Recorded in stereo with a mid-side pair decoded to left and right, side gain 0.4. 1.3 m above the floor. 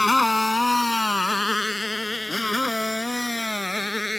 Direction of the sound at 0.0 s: 15° left.